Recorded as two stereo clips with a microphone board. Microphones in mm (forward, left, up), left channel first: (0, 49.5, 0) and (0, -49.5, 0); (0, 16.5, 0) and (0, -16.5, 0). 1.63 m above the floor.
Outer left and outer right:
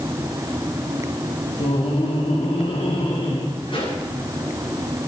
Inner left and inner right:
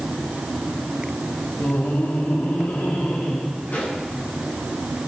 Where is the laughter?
80° left, 3 m.